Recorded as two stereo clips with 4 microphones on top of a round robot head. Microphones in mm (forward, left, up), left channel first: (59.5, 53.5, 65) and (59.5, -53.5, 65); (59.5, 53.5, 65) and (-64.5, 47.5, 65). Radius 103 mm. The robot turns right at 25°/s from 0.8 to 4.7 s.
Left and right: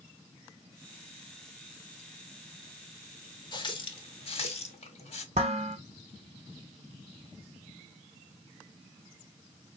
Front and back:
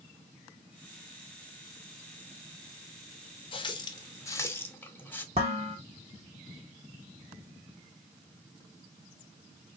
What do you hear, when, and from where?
3.5 s a running tap: 50° left, 0.9 m; by 5.2 s 75° left, 0.9 m
5.3 s dishes clattering: 125° right, 0.7 m